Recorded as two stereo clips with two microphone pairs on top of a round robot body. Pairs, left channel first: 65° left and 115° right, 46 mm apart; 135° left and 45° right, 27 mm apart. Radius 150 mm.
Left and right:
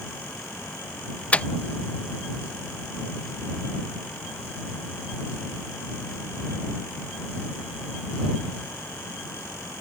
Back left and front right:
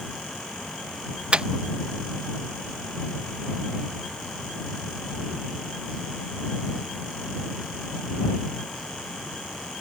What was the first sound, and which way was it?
A microwave, 5° left.